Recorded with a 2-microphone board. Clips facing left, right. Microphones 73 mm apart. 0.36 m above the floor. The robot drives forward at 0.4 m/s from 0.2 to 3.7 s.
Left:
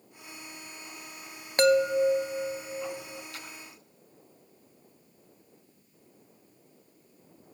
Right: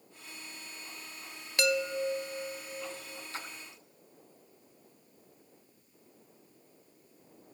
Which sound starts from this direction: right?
A splash, at 3.3 s.